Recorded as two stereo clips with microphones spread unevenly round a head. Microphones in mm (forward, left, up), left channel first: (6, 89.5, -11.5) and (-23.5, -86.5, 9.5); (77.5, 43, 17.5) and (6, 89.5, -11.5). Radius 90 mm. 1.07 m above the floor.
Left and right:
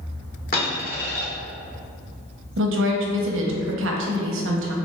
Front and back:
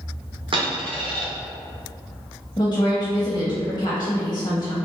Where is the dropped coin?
120° left, 1.2 m.